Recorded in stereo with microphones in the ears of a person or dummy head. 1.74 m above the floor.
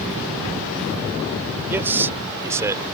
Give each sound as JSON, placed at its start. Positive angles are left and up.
{"t": 1.7, "sound": "a man speaking", "side_deg": -10}